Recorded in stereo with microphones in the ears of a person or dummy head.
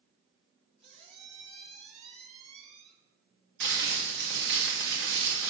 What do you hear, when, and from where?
0.8 s a squeak: 40° right (ahead or behind), 1.7 m
3.6 s crumpling: 60° right (ahead or behind), 1.8 m